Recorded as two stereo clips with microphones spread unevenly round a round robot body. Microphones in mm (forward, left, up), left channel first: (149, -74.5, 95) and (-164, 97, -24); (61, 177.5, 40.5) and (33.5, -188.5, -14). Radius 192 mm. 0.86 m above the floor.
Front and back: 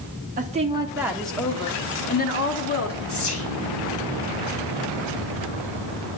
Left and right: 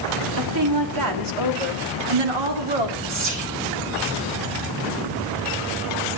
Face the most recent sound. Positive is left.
turn(degrees=-85)